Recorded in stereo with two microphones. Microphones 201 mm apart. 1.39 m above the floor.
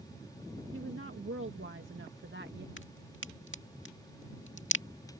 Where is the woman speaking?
85° right; by 2.7 s 60° right (ahead or behind).